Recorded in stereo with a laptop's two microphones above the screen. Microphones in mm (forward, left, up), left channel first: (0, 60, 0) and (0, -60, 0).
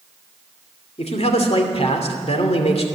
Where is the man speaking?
60° left (ahead or behind), 2.5 m.